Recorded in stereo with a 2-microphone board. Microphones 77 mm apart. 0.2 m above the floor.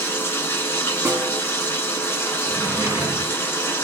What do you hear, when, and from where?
0.0 s running water: 30° left (ahead or behind), 0.7 m
1.1 s a snare drum: 35° right (ahead or behind), 0.6 m
2.5 s a drawer: 40° right (ahead or behind), 0.9 m